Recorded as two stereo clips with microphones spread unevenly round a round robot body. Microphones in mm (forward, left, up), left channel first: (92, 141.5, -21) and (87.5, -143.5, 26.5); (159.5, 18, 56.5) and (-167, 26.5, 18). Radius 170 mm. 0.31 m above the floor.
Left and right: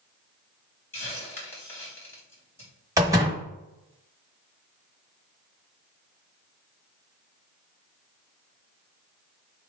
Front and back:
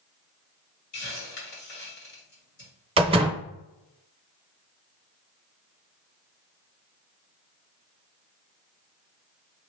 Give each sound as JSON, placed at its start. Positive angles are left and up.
{"t": 0.9, "sound": "a hiss", "azimuth_deg": 20, "distance_m": 2.5}
{"t": 3.0, "sound": "a door slam", "azimuth_deg": 180, "distance_m": 1.0}